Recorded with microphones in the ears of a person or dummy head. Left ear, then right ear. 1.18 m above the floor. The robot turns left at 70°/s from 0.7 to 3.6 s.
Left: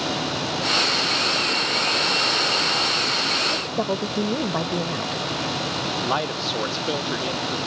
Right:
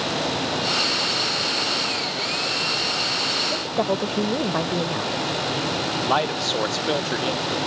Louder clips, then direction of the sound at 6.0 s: Right 4 dB; 20° right (ahead or behind).